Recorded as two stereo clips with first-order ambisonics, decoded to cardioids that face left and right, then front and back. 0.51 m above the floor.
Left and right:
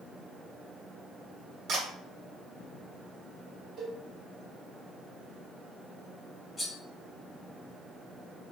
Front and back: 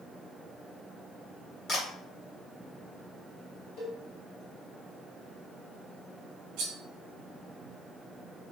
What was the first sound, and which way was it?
A camera shutter, 50° right.